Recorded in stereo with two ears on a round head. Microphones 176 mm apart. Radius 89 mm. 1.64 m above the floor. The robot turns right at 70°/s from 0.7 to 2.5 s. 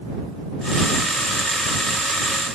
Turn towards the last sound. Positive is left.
No sound to turn to.